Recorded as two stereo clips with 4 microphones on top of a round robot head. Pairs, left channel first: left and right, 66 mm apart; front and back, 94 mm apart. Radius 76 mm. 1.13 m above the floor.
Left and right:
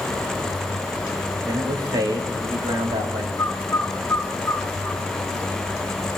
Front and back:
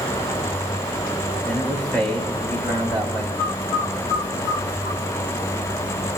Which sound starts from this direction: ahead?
A bird, at 3.4 s.